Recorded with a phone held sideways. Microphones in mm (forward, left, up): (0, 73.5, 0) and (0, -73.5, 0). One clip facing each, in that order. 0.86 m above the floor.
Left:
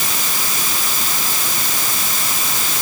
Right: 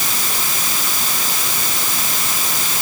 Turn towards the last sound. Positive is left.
No sound to turn to.